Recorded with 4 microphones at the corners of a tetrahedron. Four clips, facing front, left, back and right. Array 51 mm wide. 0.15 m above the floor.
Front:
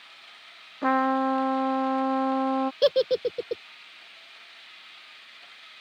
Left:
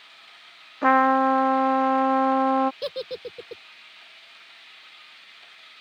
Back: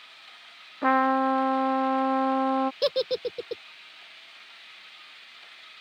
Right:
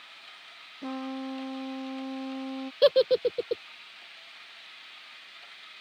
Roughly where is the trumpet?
Left.